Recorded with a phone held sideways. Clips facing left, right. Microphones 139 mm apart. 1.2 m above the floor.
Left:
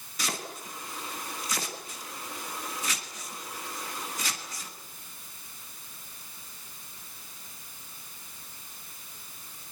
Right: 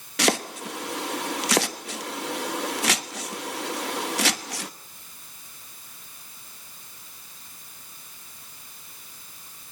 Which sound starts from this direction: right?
Chopping, at 0.2 s.